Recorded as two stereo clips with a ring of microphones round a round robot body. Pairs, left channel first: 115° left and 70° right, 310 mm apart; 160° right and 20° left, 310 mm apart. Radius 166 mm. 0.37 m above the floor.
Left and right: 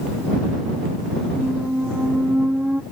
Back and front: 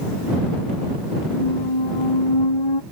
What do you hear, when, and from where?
1.3 s a squeak: 155° right